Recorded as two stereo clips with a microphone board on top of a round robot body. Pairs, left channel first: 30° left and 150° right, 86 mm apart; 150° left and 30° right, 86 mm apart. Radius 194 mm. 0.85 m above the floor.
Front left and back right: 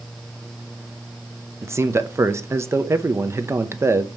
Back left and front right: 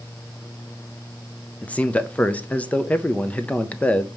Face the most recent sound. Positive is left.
turn(degrees=-150)